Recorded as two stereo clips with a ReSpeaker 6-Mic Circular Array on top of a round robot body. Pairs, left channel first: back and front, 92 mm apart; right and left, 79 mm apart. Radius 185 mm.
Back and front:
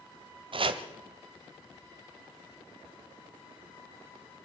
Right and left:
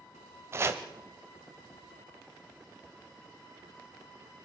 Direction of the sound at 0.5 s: 30° left.